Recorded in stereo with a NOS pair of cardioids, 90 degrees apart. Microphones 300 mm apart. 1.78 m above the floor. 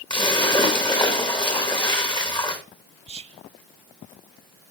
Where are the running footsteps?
No running footsteps in this recording.